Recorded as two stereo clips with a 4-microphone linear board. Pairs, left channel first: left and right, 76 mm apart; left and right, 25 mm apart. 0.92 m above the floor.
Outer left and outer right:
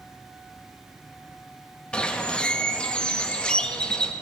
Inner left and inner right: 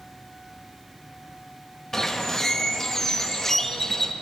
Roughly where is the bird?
Centre.